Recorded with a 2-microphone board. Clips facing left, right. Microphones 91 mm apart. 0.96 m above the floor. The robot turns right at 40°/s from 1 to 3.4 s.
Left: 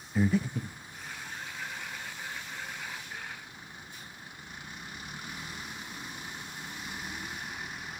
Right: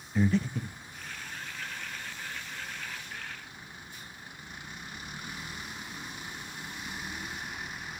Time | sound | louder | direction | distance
0.1 | breathing | even | 5° left (ahead or behind) | 0.6 m